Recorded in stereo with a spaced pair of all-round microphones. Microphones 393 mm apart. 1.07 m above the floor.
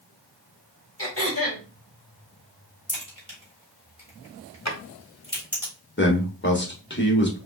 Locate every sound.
1.0 s throat clearing: 30° left (ahead or behind), 2.0 m
2.9 s a crack: 15° left (ahead or behind), 3 m
4.7 s a drawer: 40° left (ahead or behind), 1.0 m
6.0 s a man speaking: 25° left (ahead or behind), 1.3 m